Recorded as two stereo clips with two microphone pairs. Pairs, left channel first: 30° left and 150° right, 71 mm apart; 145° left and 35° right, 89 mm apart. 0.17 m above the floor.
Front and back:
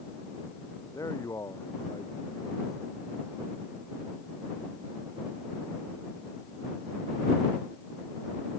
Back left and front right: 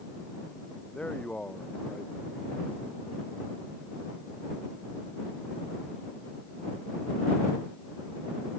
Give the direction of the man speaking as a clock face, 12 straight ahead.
10 o'clock.